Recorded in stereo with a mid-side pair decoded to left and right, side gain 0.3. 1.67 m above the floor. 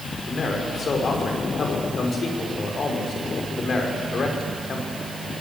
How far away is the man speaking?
About 5.5 m.